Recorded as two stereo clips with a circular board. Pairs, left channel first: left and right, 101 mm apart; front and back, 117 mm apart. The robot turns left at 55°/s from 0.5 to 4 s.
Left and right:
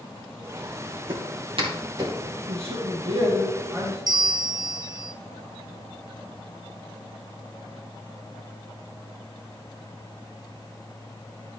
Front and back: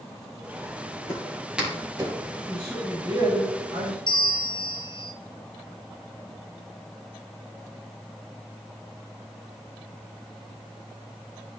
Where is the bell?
45° right, 0.5 m.